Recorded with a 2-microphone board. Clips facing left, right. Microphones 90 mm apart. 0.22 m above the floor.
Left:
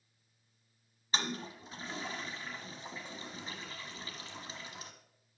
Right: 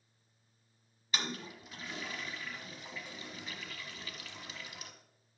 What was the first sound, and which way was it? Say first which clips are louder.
A toilet flushing: left 2 dB; 30° left (ahead or behind).